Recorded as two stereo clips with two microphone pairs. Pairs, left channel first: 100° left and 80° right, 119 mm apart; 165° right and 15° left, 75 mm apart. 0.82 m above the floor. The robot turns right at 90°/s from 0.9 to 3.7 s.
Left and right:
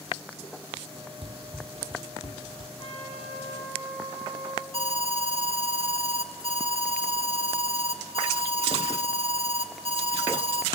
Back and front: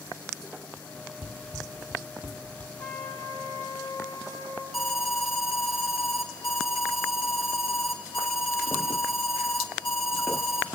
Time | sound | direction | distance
1.2 | running footsteps | 40° right | 1.4 m
2.8 | a trumpet | 145° left | 4 m
4.7 | an alarm | 75° right | 1.4 m